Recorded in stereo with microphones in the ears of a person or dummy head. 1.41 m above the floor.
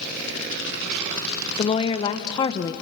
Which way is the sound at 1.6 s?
25° left (ahead or behind).